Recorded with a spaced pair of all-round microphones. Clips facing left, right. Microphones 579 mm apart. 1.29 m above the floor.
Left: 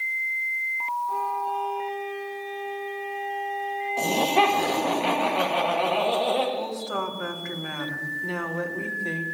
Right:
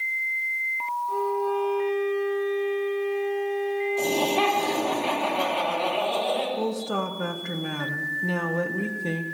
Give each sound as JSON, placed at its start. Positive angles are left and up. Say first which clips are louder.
{"t": 1.1, "sound": "a violin", "louder": "right 10 dB", "side_deg": 15, "distance_m": 2.5}
{"t": 4.0, "sound": "laughter", "louder": "left 4 dB", "side_deg": 80, "distance_m": 2.0}
{"t": 6.6, "sound": "a woman speaking", "louder": "right 4 dB", "side_deg": -55, "distance_m": 1.2}